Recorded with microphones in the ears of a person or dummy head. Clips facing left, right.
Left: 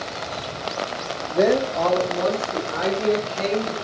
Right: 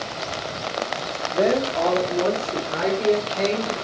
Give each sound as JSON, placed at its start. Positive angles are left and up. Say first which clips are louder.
{"t": 1.3, "sound": "a woman speaking", "louder": "left 2 dB", "side_deg": 10, "distance_m": 1.6}